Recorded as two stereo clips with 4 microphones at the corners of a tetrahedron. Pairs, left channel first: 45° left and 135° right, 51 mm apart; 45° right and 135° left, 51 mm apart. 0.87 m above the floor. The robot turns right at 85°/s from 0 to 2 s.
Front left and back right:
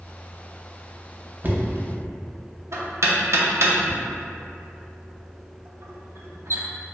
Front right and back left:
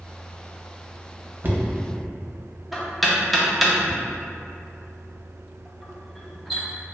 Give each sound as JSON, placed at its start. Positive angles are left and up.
{"t": 1.4, "sound": "knocking", "azimuth_deg": 175, "distance_m": 0.5}